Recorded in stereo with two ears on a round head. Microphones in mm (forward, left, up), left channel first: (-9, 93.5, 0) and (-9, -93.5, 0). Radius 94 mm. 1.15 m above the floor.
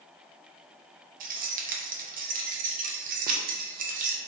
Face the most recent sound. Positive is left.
turn(degrees=-40)  # may be behind; listen again after turning